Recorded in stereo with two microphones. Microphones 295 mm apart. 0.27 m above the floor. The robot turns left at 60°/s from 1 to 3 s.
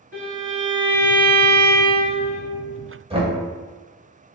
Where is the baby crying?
I don't hear a baby crying.